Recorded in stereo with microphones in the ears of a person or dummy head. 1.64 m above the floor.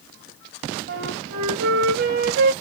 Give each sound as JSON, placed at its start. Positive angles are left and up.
{"t": 0.9, "sound": "a flute", "side_deg": -50, "distance_m": 0.7}